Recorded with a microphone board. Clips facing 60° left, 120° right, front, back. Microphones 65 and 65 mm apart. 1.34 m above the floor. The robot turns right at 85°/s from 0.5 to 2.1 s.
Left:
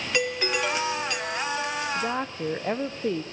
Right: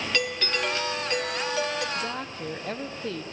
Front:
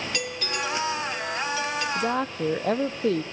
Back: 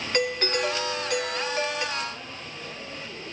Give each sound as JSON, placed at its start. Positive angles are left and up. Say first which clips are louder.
{"t": 0.1, "sound": "a doorbell", "louder": "left 4 dB, back 9 dB", "azimuth_deg": 135, "distance_m": 1.1}
{"t": 1.9, "sound": "a woman speaking", "louder": "left 4 dB, front 9 dB", "azimuth_deg": -20, "distance_m": 0.5}